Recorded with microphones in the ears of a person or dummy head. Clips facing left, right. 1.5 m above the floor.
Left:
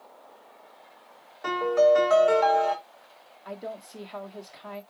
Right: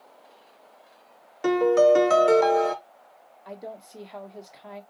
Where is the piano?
50° right (ahead or behind), 0.7 m.